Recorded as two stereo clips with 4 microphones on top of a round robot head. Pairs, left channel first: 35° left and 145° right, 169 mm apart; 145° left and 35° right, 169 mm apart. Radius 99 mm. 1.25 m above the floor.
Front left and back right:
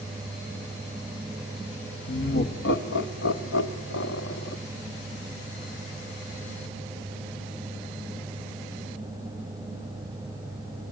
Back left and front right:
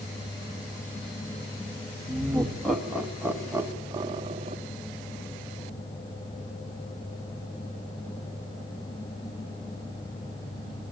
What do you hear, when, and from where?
2.1 s laughter: 60° left, 2.0 m; by 4.6 s 20° left, 1.1 m